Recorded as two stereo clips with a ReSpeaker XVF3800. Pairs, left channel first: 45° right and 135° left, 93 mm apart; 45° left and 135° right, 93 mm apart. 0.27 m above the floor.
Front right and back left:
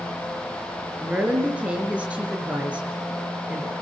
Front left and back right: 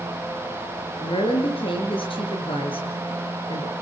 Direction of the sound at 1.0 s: 55° left.